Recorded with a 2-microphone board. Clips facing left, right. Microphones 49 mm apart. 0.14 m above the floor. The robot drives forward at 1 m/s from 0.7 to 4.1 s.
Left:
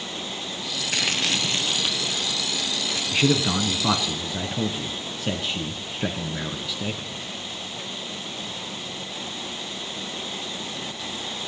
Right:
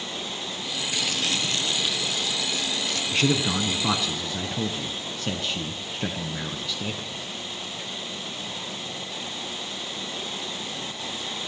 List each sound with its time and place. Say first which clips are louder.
0.9 s crumpling: left 3 dB; 60° left (ahead or behind), 0.8 m; by 3.0 s 15° left (ahead or behind), 2.5 m
3.1 s a man speaking: left 2 dB; 10° left (ahead or behind), 1.3 m